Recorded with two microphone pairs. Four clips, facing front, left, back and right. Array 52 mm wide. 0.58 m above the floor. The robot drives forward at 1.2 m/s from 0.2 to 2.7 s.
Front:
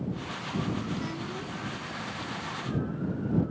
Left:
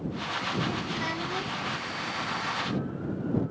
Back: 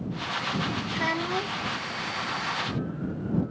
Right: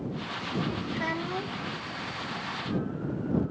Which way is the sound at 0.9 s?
165° right.